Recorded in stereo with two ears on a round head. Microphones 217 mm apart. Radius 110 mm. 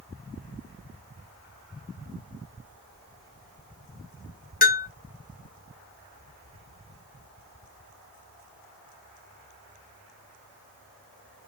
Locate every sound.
4.6 s a bell: 35° left (ahead or behind), 1.0 m